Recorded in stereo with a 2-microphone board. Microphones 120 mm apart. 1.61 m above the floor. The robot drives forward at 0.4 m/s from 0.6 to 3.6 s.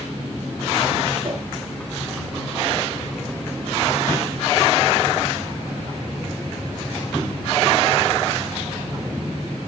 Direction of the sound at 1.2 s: 80° right.